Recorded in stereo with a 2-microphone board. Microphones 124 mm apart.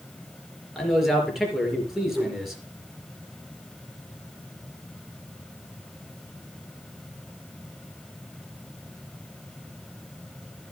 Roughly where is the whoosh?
Centre.